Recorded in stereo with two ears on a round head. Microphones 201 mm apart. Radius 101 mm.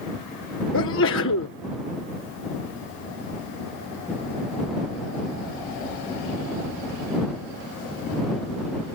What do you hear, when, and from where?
0.7 s a sneeze: 65° left (ahead or behind)